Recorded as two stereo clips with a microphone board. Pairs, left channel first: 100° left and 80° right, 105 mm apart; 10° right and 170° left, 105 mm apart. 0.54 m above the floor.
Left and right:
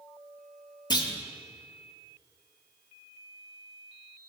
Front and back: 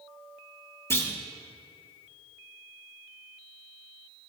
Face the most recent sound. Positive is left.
turn(degrees=50)